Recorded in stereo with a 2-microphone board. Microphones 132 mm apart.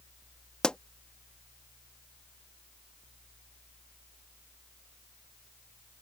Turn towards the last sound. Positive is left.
turn(degrees=5)  # may be behind; listen again after turning